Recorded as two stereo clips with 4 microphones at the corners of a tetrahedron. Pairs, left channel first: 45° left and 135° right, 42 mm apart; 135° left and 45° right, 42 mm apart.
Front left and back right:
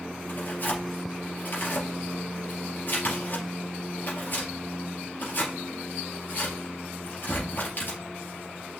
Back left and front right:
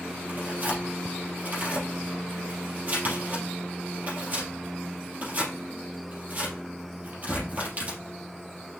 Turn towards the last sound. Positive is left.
turn(degrees=5)